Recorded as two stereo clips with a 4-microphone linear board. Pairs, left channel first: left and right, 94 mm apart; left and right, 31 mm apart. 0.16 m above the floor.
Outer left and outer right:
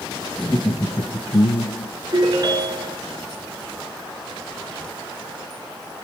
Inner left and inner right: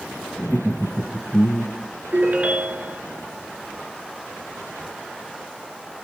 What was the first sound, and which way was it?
Laughter, 10° left (ahead or behind).